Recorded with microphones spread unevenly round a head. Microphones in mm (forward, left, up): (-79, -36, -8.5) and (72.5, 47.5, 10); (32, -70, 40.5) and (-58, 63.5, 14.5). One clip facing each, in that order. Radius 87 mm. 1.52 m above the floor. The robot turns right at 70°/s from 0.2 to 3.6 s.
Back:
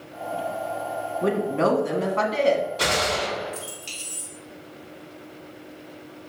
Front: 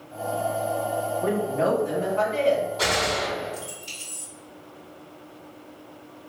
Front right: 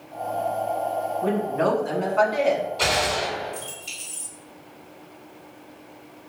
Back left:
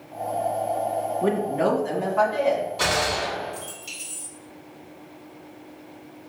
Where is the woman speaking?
155° left, 1.0 m; by 2.7 s 105° right, 1.0 m.